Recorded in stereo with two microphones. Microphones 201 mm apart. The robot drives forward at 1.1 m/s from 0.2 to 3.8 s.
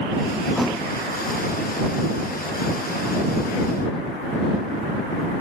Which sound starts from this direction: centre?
A thud, at 0.6 s.